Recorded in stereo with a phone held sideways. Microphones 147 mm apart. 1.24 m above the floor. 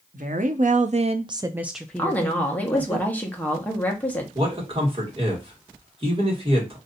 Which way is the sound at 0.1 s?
65° right (ahead or behind).